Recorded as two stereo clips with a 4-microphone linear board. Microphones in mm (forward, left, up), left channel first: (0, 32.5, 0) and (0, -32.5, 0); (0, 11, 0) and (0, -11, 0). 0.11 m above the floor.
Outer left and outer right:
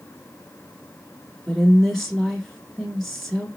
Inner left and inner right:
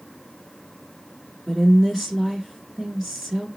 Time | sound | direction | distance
1.5 | a woman speaking | 5° left (ahead or behind) | 1.1 m